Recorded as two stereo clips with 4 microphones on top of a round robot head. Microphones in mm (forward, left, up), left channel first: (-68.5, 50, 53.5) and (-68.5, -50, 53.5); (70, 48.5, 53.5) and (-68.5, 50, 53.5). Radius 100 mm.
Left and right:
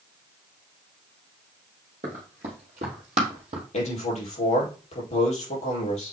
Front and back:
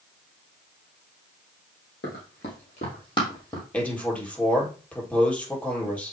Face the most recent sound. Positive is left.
turn(degrees=75)